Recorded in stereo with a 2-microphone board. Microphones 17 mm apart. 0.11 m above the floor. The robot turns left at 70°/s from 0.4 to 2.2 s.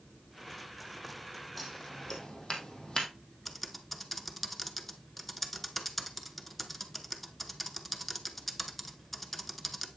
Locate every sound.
1.6 s scissors: 5° left (ahead or behind), 2.5 m; by 3.1 s 45° left (ahead or behind), 2.5 m
3.5 s typing on a keyboard: 5° left (ahead or behind), 0.9 m